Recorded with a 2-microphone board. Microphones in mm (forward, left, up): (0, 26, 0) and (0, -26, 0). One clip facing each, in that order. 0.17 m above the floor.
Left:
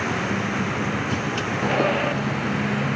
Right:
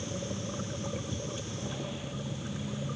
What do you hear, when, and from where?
0.0 s a vehicle: 85° left